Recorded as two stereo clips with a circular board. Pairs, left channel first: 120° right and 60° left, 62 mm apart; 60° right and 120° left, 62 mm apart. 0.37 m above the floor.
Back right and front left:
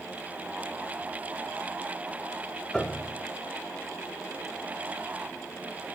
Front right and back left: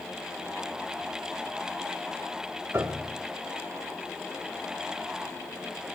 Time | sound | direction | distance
2.7 | a piano | 160° left | 0.8 m